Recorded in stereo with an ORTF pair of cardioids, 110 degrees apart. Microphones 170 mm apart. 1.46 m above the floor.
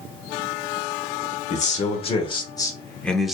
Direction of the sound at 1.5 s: 45° left.